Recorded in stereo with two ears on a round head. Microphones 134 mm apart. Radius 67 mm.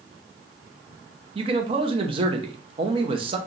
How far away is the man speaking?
About 0.6 m.